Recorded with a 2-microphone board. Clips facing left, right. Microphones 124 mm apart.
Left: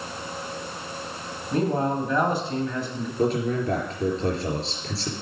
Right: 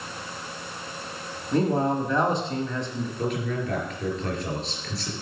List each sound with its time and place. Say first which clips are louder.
1.5 s a man speaking: right 1 dB; 5° left (ahead or behind), 1.3 m
3.2 s a man speaking: left 6 dB; 35° left (ahead or behind), 4.5 m